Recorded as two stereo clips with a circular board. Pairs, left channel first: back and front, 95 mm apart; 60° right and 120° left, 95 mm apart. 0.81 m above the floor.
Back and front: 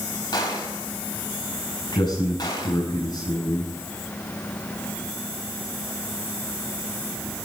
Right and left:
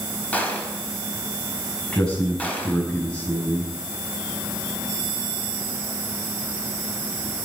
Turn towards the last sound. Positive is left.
turn(degrees=-140)